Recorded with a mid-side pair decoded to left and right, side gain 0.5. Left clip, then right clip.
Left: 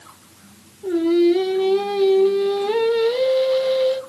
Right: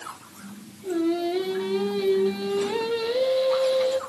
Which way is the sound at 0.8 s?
65° left.